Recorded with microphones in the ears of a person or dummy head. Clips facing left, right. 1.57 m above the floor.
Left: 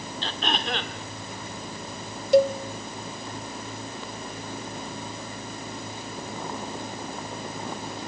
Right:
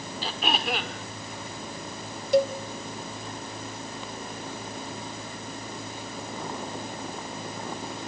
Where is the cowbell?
60° left (ahead or behind), 1.0 m.